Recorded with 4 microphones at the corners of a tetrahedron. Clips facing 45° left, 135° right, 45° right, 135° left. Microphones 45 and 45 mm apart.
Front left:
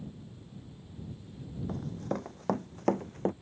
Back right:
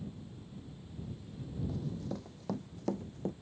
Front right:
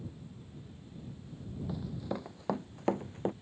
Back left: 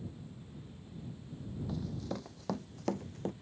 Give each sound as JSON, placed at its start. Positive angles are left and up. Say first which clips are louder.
{"t": 1.7, "sound": "running footsteps", "louder": "front left 7 dB, front right 2 dB", "azimuth_deg": 35}